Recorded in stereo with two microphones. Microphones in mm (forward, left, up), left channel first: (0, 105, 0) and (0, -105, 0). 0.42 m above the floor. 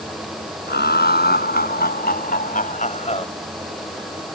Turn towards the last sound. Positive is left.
turn(degrees=30)  # may be behind; listen again after turning